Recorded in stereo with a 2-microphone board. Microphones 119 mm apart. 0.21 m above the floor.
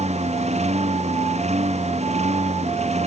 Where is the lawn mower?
65° right (ahead or behind).